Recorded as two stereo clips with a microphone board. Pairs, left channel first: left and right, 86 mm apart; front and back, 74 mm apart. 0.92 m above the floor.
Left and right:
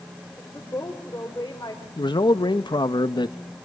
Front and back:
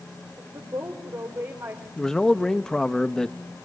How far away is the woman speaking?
About 3.5 m.